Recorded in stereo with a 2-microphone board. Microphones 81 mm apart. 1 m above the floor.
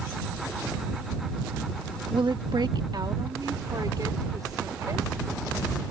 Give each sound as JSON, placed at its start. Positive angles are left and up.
{"t": 2.1, "sound": "a woman speaking", "side_deg": -70}